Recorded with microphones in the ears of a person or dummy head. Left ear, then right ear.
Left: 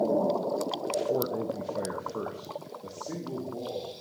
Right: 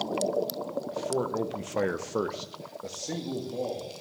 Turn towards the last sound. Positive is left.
turn(degrees=-55)  # may be behind; listen again after turning